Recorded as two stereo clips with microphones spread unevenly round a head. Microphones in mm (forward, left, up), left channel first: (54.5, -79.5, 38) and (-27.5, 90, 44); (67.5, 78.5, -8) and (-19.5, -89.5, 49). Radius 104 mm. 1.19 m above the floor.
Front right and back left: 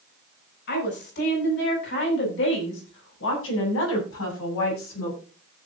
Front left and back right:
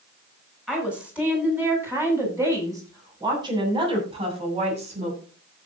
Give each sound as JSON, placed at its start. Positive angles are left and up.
{"t": 0.7, "sound": "a woman speaking", "azimuth_deg": -30, "distance_m": 10.0}